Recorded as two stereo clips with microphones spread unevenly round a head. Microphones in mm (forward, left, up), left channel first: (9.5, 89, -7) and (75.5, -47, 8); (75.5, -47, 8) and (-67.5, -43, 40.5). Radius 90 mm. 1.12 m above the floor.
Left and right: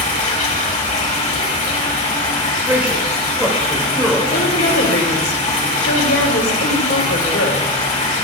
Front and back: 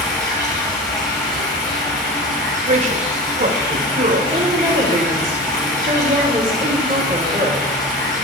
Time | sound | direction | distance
0.0 | running water | 70° left | 5.5 m
2.7 | a man speaking | 145° right | 3.5 m
4.3 | a woman speaking | 120° left | 3 m